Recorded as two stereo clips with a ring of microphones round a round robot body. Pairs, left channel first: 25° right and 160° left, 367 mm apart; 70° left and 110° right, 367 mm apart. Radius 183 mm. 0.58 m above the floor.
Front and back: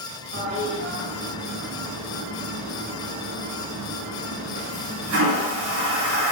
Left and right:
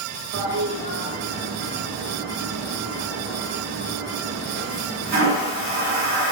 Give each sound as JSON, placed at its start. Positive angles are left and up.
{"t": 0.3, "sound": "a toilet flushing", "azimuth_deg": -170, "distance_m": 0.9}